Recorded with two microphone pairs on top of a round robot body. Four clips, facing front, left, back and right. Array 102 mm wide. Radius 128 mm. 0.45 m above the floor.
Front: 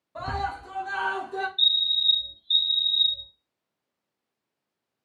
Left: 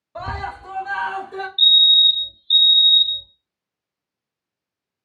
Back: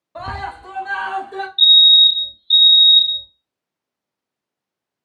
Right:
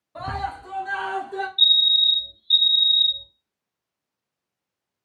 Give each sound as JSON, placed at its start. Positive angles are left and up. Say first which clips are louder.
{"t": 0.1, "sound": "a scream", "louder": "even, back 2 dB", "azimuth_deg": 155, "distance_m": 1.0}
{"t": 1.6, "sound": "a fire alarm", "louder": "left 5 dB, back 13 dB", "azimuth_deg": 175, "distance_m": 2.0}